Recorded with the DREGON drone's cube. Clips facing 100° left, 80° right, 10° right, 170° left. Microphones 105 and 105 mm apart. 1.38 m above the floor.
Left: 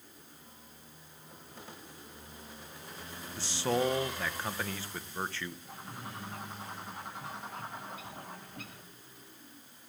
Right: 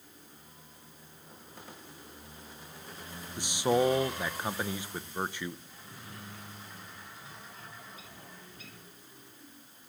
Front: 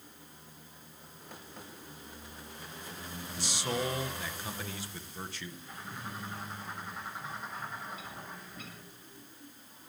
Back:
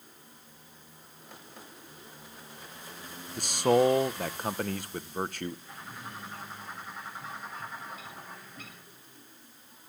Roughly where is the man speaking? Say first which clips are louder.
Right 4 dB, back 12 dB; behind right.